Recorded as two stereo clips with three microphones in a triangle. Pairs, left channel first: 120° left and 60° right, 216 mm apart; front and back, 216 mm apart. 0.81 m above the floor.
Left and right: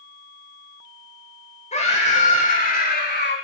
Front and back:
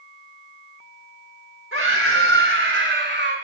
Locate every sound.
1.7 s a scream: 175° left, 4 m; by 3.4 s 150° left, 2.5 m